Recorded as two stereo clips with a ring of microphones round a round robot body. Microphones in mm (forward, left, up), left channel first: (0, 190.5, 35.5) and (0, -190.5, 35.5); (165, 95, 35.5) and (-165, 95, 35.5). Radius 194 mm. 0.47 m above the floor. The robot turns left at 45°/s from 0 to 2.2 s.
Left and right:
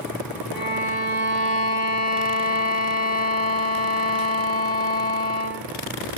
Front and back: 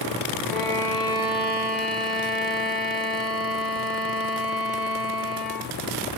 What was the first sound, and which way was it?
A violin, 85° left.